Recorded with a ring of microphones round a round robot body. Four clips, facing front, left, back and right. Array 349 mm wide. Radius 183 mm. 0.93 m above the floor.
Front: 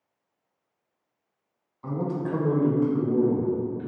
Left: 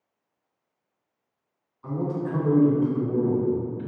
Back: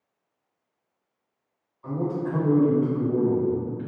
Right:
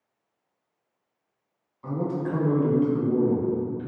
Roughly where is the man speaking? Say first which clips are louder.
Even, back 1 dB; ahead right.